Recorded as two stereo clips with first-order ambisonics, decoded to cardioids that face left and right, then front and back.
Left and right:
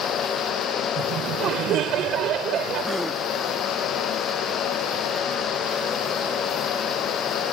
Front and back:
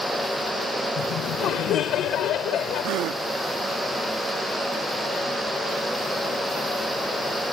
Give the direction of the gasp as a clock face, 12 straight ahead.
6 o'clock.